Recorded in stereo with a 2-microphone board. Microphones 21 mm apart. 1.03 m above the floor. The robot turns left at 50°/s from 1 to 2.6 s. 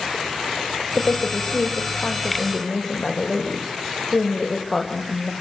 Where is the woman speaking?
105° left, 5 m; by 5.3 s 25° left, 5 m.